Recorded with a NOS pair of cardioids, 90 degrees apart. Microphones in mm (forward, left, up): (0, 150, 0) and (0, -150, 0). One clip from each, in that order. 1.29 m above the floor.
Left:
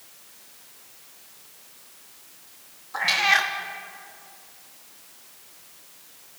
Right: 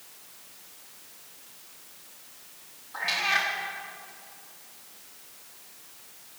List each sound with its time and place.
2.9 s a cat meowing: 40° left, 1.4 m